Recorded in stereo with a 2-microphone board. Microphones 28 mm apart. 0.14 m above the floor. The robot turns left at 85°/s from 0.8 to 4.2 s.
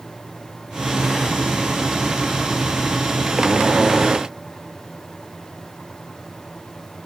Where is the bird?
I don't hear a bird.